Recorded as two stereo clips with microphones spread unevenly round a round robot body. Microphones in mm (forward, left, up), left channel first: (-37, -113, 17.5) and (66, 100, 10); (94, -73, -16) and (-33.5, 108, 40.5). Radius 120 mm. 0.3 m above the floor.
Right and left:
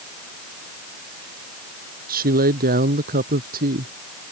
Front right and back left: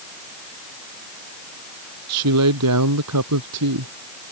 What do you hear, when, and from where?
2.1 s a woman speaking: 120° left